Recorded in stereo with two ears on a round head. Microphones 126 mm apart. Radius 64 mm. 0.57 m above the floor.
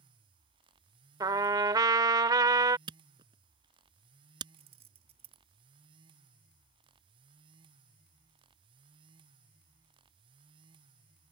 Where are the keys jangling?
45° right (ahead or behind).